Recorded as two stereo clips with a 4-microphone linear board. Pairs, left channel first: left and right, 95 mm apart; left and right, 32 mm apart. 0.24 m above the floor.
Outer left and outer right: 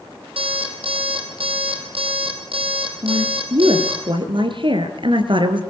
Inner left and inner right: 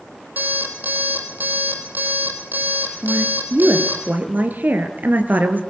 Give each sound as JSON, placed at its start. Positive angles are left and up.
{"t": 0.4, "sound": "an alarm clock", "side_deg": -70, "distance_m": 4.5}
{"t": 3.0, "sound": "a woman speaking", "side_deg": -60, "distance_m": 3.5}